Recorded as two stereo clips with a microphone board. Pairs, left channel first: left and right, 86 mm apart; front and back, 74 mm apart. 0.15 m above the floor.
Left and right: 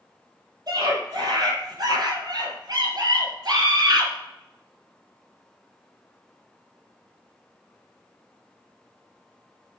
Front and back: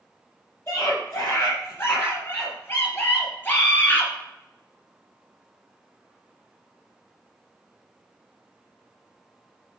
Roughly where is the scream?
Ahead right.